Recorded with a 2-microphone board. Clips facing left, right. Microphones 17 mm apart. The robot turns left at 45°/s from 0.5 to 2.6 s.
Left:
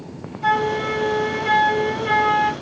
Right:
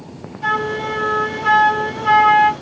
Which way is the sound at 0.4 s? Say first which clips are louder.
Even; 45° right.